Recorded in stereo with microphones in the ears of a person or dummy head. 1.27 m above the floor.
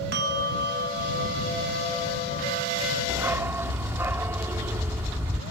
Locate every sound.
0.1 s a bell: 65° right (ahead or behind)
3.1 s a dog barking: 20° right (ahead or behind)